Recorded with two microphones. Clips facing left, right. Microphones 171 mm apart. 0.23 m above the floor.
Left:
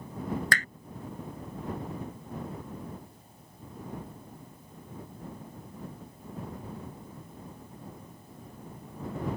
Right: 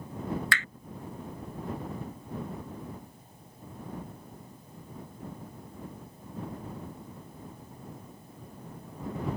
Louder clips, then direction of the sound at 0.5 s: Left 2 dB; 45° left (ahead or behind).